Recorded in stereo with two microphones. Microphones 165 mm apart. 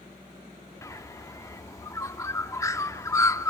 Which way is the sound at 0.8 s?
20° left (ahead or behind).